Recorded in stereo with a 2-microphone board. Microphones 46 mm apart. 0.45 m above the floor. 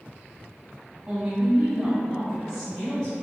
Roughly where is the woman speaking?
Right.